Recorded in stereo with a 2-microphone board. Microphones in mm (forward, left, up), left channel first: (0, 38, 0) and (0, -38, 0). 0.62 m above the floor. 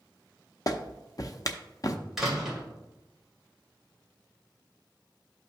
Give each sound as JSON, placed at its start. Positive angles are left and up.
{"t": 0.7, "sound": "a clap", "side_deg": 45, "distance_m": 0.6}
{"t": 2.2, "sound": "a door slam", "side_deg": -5, "distance_m": 2.0}